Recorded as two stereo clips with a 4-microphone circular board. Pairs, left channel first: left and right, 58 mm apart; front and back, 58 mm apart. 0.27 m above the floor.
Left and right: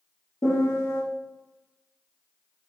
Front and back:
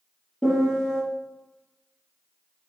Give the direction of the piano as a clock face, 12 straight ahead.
9 o'clock.